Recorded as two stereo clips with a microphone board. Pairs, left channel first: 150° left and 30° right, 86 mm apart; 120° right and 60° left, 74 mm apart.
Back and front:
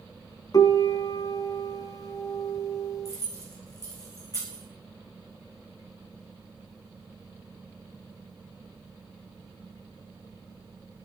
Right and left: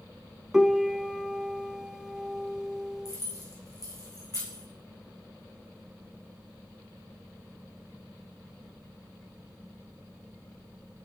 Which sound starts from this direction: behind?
Keys jangling, at 3.0 s.